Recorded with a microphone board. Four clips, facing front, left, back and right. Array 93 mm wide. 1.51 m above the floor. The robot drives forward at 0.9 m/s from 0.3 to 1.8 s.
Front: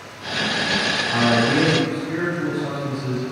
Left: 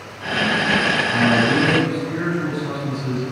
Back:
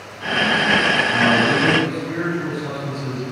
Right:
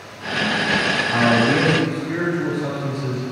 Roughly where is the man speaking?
Right.